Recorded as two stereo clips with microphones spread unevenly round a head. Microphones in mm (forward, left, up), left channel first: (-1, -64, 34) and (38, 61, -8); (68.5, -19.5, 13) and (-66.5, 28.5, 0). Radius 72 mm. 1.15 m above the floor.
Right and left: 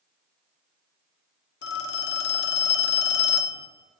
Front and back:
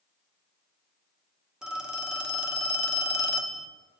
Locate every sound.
1.6 s a phone ringing: 115° right, 0.5 m